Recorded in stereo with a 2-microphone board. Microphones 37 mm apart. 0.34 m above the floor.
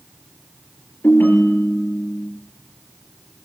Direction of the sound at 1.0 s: 70° left (ahead or behind).